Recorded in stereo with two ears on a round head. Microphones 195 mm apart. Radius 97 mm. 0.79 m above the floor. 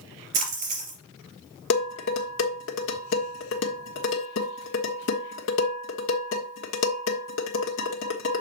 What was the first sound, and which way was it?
A splash, 35° right (ahead or behind).